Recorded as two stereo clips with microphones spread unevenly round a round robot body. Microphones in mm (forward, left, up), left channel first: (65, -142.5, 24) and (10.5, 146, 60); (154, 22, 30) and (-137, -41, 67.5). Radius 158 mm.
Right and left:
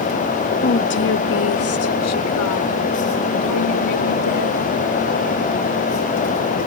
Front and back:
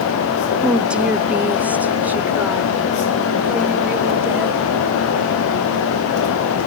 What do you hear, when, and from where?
0.6 s a woman speaking: 70° right; by 4.7 s 80° right